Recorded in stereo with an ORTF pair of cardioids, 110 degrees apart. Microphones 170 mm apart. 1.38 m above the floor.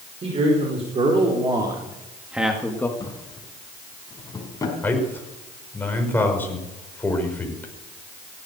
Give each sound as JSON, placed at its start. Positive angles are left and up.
{"t": 0.2, "sound": "a man speaking", "azimuth_deg": -35, "distance_m": 5.0}
{"t": 3.0, "sound": "a drawer", "azimuth_deg": 20, "distance_m": 5.0}
{"t": 4.8, "sound": "a man speaking", "azimuth_deg": 10, "distance_m": 5.5}